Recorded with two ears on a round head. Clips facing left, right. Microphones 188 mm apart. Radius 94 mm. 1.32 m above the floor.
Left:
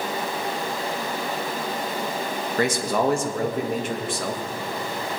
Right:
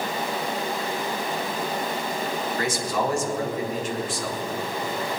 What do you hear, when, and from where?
2.6 s a man speaking: 50° left (ahead or behind), 1.6 m